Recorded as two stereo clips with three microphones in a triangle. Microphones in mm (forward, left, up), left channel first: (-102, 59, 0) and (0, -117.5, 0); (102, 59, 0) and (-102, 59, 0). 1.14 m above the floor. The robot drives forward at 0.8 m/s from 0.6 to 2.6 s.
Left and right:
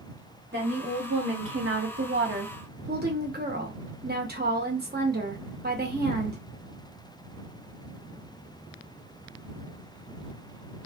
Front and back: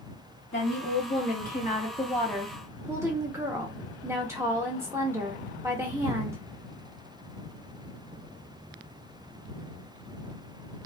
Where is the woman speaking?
30° right, 1.6 m; by 6.4 s 105° right, 0.8 m.